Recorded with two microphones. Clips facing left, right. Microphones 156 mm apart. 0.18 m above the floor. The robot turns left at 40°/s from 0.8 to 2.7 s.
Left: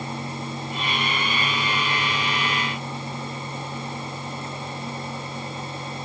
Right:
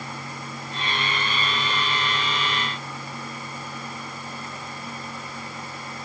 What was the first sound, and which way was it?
Only background noise.